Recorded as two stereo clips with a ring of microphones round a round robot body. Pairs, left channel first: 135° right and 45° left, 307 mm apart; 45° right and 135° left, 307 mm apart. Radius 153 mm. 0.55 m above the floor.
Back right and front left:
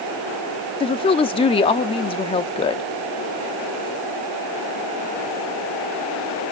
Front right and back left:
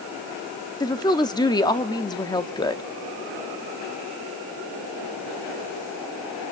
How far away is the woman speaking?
About 0.7 m.